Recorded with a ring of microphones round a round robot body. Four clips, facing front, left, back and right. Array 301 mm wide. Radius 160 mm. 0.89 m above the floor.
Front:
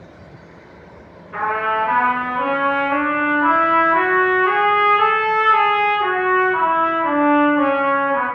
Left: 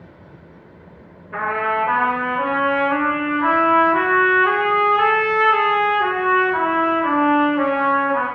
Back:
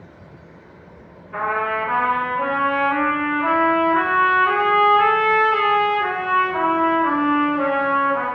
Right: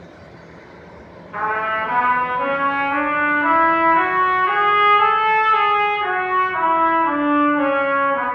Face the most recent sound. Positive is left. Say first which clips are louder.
# left 1 dB, front 2 dB
turn(degrees=65)